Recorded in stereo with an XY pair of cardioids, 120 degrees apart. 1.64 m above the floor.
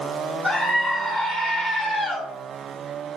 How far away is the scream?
About 1.6 m.